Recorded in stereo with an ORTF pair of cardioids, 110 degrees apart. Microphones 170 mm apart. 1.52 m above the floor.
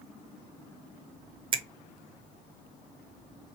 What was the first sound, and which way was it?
A finger snap, 30° right.